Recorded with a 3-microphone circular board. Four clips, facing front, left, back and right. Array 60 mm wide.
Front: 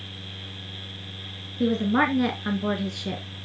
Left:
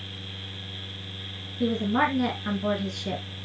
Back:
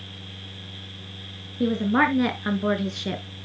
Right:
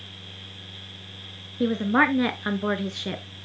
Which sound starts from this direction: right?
A woman speaking, at 1.6 s.